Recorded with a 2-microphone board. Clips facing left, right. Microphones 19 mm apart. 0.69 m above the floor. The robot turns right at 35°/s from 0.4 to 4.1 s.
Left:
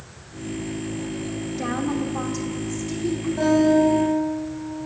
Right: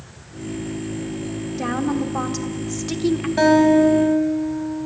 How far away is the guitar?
About 4 m.